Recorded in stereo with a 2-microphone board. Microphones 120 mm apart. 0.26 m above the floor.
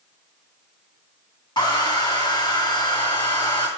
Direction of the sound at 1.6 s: 35° left (ahead or behind).